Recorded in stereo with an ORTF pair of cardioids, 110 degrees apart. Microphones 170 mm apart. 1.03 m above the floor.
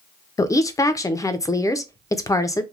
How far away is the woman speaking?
About 0.5 m.